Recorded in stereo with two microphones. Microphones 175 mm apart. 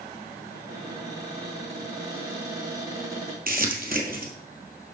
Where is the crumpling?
55° right (ahead or behind), 1.6 m.